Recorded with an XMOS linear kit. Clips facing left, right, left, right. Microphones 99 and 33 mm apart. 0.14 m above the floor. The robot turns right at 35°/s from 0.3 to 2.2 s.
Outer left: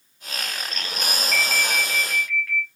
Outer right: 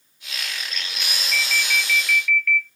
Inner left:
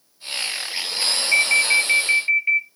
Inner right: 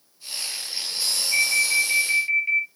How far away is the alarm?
About 3 m.